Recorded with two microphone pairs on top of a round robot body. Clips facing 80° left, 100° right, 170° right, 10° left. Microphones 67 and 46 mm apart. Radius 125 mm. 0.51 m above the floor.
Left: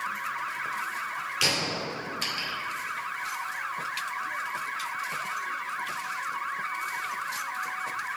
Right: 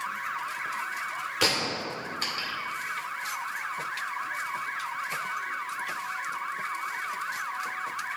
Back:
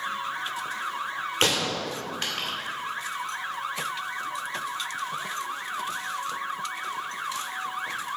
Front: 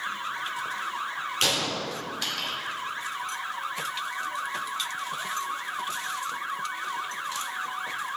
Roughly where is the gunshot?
Behind right.